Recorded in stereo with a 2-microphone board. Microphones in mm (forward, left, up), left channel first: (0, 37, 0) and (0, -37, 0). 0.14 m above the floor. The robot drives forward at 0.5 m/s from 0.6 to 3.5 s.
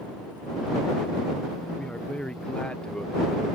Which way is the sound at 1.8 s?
10° left (ahead or behind).